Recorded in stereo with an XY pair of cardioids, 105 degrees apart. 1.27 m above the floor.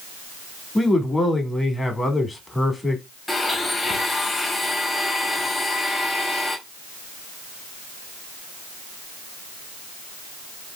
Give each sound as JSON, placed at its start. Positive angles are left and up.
{"t": 0.8, "sound": "a man speaking", "azimuth_deg": 25, "distance_m": 2.0}
{"t": 3.3, "sound": "a blender", "azimuth_deg": 25, "distance_m": 1.8}